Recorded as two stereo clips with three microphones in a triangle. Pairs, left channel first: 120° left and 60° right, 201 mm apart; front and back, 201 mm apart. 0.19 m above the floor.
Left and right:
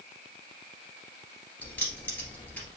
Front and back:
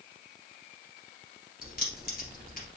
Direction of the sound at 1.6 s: 40° left.